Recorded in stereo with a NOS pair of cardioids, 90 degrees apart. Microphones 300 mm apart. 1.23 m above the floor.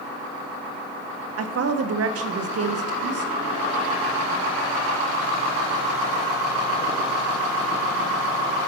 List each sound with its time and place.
1.4 s a woman speaking: 50° right, 1.0 m